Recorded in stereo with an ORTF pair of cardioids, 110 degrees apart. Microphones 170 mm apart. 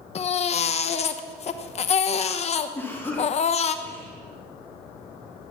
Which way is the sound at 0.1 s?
40° left.